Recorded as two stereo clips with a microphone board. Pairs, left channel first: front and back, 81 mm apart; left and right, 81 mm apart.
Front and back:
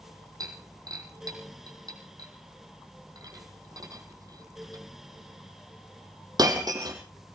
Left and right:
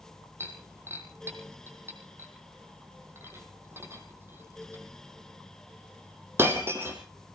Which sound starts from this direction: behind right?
Breaking glass, at 0.4 s.